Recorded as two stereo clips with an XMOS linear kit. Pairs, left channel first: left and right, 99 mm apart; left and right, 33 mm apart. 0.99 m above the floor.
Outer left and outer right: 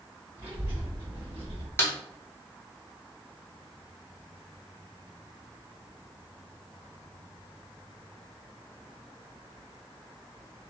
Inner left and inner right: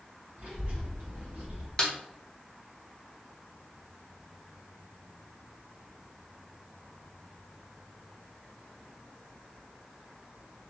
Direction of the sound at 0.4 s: 30° right (ahead or behind).